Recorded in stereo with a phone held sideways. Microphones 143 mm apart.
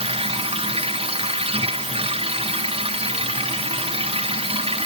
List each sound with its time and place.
0.0 s a machine running: 40° right (ahead or behind)